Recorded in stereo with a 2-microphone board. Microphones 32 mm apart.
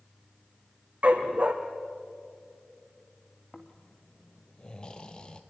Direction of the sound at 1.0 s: 40° right (ahead or behind).